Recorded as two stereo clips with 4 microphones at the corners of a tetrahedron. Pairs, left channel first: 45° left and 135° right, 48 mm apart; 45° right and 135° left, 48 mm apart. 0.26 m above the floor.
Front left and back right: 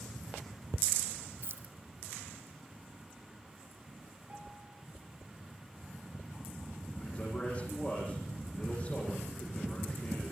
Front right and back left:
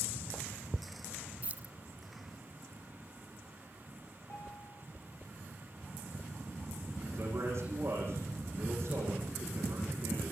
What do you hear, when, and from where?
1.4 s keys jangling: 170° right, 1.5 m
4.3 s a piano: 80° right, 5 m
7.0 s a man speaking: 110° left, 10 m